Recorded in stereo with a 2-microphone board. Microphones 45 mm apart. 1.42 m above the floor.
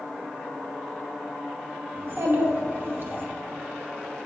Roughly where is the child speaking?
Right.